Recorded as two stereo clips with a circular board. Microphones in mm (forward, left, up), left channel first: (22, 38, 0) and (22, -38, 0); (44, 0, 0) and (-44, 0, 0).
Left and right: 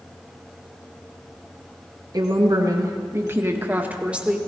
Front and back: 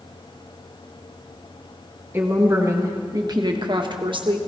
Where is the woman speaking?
115° right, 1.6 m; by 4.4 s 170° right, 1.4 m.